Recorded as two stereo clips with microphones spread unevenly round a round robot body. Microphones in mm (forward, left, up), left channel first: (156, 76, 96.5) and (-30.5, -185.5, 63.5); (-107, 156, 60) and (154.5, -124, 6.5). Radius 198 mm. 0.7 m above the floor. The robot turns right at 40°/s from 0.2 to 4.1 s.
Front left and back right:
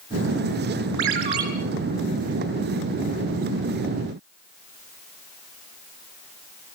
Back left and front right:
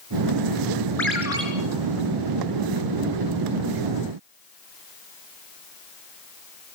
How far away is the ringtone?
About 5.5 m.